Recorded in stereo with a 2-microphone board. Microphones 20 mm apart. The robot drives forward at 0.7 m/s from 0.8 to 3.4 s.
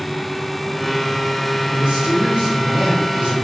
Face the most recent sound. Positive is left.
turn(degrees=-50)  # may be behind; listen again after turning